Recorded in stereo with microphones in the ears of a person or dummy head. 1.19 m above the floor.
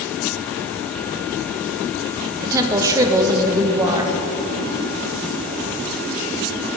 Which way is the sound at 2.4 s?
20° right (ahead or behind).